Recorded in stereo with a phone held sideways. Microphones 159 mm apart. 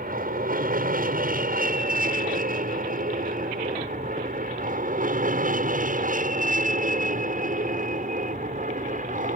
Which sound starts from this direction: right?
An aircraft, at 0.0 s.